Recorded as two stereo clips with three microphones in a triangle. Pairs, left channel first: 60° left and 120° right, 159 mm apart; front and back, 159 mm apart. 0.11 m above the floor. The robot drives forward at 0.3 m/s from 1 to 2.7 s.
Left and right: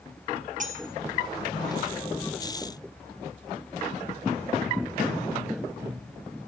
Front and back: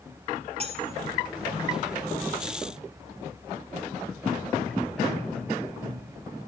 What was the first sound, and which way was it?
Cutlery clinking, 140° right.